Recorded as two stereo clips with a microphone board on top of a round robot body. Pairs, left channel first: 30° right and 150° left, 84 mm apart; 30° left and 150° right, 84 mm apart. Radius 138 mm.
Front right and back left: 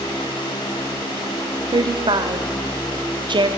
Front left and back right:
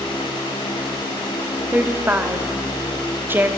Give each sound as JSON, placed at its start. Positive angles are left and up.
{"t": 1.7, "sound": "a woman speaking", "azimuth_deg": 145, "distance_m": 1.8}